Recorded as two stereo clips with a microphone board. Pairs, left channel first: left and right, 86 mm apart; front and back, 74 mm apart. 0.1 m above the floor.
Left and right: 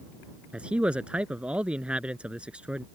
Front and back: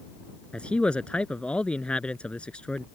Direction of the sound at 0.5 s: 40° right.